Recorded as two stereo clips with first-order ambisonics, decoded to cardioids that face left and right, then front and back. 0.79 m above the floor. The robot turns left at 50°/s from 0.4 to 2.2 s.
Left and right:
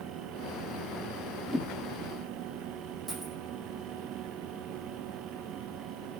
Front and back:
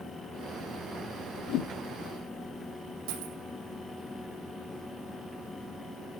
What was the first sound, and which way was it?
A whoosh, 15° left.